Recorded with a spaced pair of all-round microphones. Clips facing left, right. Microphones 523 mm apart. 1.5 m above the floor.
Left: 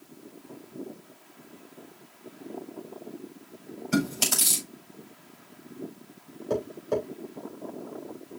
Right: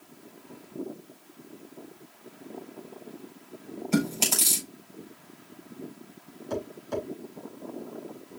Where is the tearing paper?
I don't hear tearing paper.